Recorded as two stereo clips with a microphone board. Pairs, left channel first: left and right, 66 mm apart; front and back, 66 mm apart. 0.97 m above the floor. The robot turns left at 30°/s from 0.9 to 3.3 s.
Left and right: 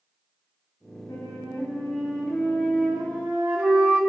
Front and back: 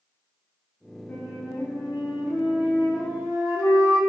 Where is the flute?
50° left, 0.8 m; by 4.0 s 15° right, 0.8 m.